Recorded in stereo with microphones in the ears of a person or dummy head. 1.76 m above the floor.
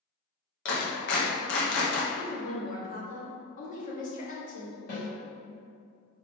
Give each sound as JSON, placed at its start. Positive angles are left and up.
{"t": 0.7, "sound": "a clap", "side_deg": 60, "distance_m": 1.0}
{"t": 2.1, "sound": "a woman speaking", "side_deg": 40, "distance_m": 1.0}
{"t": 4.9, "sound": "a snare drum", "side_deg": 55, "distance_m": 1.6}